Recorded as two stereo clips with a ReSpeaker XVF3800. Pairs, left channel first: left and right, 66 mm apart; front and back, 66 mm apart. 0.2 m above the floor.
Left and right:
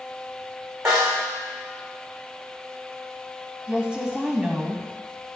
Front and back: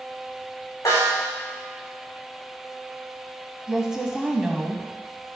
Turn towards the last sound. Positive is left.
turn(degrees=-125)